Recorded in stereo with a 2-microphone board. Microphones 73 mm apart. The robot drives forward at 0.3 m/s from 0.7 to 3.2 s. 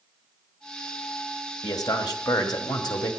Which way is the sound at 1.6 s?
65° left (ahead or behind).